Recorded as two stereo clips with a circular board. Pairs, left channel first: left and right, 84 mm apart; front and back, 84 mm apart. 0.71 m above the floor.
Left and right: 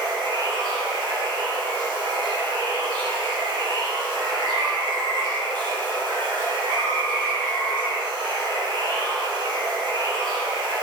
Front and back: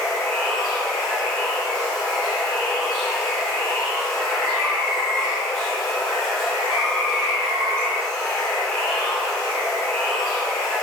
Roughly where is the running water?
Right.